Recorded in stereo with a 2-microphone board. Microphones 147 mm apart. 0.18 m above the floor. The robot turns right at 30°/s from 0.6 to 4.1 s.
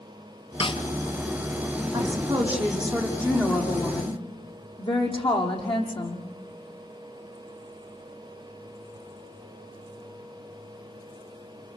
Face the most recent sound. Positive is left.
turn(degrees=35)